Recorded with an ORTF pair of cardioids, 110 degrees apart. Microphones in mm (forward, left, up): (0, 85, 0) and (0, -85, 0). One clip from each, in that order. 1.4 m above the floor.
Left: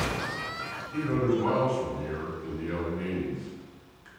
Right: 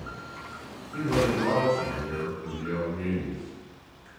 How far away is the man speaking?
About 1.7 m.